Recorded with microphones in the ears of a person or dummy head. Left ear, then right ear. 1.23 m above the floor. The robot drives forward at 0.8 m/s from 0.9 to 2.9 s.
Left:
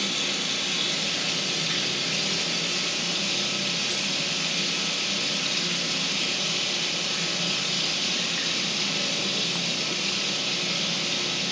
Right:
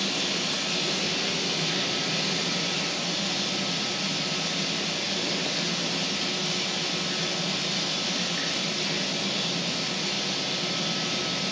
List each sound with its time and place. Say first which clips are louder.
0.0 s running water: left 1 dB; 30° right (ahead or behind), 3 m; by 11.5 s 20° right (ahead or behind), 4.5 m